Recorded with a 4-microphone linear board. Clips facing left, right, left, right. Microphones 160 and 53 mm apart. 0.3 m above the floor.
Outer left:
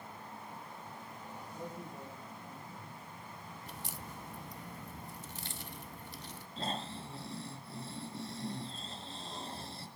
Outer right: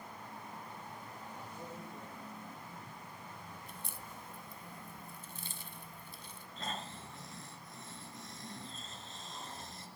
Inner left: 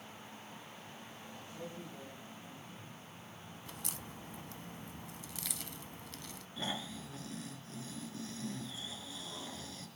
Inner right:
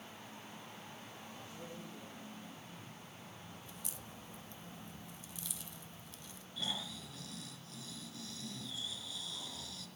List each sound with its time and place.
1.5 s a man speaking: 15° left (ahead or behind), 6.5 m
3.7 s a crack: 70° left (ahead or behind), 0.9 m
6.6 s snoring: 30° left (ahead or behind), 4 m